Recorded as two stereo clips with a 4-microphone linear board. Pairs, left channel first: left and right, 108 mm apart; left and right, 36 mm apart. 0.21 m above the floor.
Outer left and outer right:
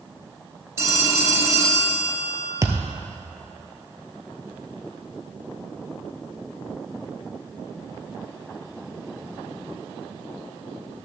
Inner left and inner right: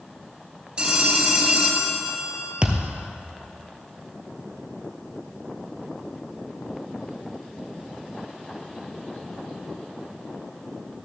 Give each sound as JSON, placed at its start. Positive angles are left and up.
{"t": 0.8, "sound": "a phone ringing", "side_deg": -25, "distance_m": 2.5}
{"t": 2.6, "sound": "a thud", "side_deg": -30, "distance_m": 1.1}